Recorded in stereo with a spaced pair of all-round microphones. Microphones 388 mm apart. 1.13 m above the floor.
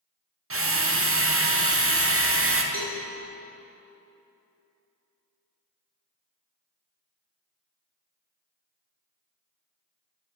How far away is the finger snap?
I don't hear a finger snap.